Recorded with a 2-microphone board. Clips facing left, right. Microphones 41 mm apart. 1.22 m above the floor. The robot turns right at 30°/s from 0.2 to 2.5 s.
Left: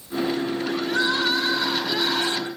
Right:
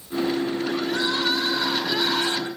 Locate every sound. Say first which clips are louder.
0.8 s crying: left 4 dB; 155° left, 6 m; by 2.5 s 155° right, 6 m